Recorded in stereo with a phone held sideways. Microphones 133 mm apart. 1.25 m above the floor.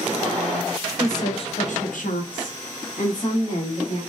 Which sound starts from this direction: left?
A woman speaking, at 1.0 s.